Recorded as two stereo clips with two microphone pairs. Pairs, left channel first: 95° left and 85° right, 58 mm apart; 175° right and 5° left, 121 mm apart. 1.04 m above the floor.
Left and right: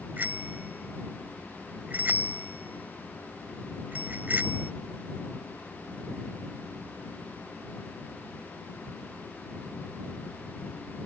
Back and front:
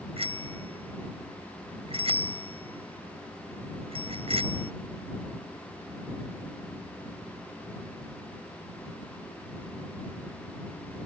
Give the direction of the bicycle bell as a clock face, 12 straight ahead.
1 o'clock.